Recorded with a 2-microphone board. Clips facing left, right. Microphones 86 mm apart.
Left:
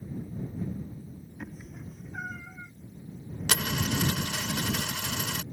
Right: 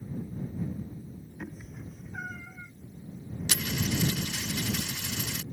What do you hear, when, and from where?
1.4 s a cat meowing: 5° right (ahead or behind); by 2.7 s 15° left (ahead or behind)
3.5 s a dropped coin: 65° left (ahead or behind)